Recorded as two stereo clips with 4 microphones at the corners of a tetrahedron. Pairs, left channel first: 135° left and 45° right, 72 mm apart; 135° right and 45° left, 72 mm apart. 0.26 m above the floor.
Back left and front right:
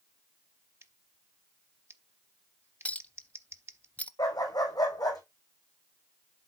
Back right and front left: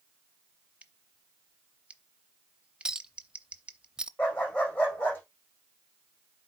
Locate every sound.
0.8 s scissors: 20° right, 0.7 m
2.9 s a clink: 110° left, 0.5 m
4.2 s a dog barking: 160° left, 4 m